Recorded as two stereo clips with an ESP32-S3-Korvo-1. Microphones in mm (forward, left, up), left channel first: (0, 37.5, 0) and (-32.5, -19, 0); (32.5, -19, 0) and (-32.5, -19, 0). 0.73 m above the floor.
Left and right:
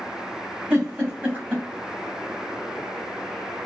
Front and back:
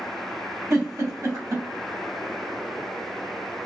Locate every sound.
0.7 s a giggle: straight behind, 1.5 m